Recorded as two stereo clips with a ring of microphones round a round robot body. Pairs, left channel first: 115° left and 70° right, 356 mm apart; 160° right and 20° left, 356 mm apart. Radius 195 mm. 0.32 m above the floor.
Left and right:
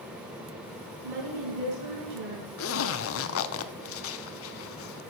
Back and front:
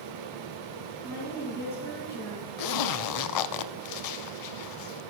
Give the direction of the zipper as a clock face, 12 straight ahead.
6 o'clock.